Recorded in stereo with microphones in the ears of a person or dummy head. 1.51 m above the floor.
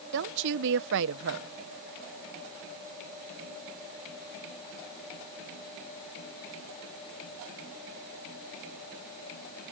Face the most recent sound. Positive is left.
turn(degrees=-60)  # may be behind; listen again after turning